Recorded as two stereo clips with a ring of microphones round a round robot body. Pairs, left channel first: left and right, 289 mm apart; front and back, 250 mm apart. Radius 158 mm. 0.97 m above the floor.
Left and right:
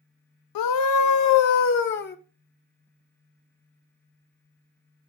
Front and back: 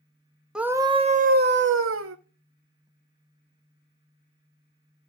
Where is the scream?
95° left, 1.1 m; by 2.2 s 150° left, 1.4 m.